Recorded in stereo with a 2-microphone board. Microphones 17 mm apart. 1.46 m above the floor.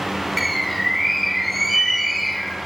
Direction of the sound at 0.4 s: 5° left (ahead or behind).